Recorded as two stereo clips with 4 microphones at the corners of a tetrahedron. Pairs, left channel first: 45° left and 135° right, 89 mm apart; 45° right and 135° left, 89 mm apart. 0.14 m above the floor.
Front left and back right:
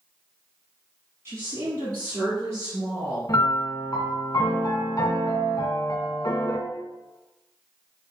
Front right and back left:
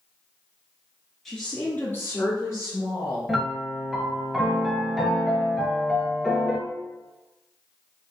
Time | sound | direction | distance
1.2 | a woman speaking | 130° right | 1.2 m
3.3 | a piano | 45° left | 0.8 m